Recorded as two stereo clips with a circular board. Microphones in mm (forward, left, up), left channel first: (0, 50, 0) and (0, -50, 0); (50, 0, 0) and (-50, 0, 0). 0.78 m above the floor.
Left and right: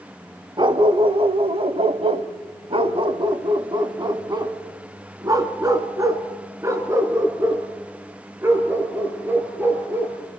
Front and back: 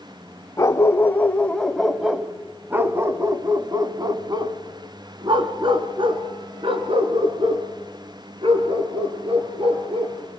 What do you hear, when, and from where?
0.6 s a dog barking: 60° right, 1.4 m; by 10.1 s 160° right, 5 m